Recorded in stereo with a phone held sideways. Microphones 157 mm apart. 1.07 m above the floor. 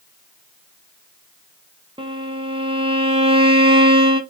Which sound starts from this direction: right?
A violin, at 2.0 s.